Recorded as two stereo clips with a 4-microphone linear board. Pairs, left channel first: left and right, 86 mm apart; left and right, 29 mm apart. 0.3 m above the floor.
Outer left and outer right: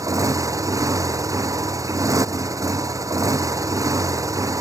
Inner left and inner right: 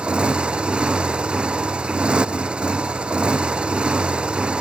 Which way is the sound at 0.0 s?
40° right (ahead or behind).